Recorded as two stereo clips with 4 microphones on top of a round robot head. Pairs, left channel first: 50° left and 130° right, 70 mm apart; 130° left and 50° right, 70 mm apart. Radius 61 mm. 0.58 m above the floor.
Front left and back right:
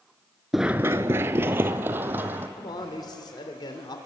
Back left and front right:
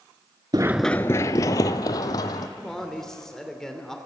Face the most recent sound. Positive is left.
turn(degrees=45)